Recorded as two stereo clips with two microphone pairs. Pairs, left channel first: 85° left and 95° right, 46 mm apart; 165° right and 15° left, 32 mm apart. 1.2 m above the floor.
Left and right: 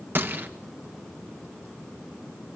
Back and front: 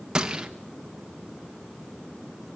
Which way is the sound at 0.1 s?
55° right.